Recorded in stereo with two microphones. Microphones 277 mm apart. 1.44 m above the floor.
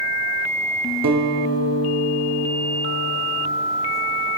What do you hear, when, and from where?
1.0 s a guitar: 85° right, 1.0 m